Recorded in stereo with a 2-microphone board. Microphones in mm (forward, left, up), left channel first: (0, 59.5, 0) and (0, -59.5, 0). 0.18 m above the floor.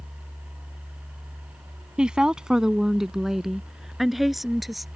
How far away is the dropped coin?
I don't hear a dropped coin.